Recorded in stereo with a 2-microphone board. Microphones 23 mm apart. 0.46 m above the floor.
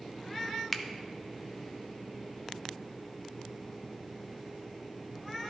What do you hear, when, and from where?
0.7 s a finger snap: 10° left (ahead or behind), 0.5 m